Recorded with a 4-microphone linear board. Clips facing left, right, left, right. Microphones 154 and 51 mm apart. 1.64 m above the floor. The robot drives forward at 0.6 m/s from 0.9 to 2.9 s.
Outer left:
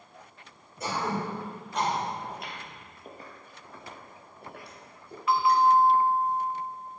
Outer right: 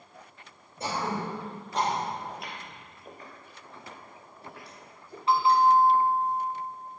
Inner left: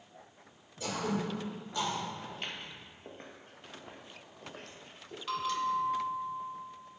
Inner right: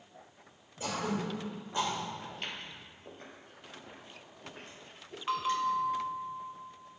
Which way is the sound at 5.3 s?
30° right (ahead or behind).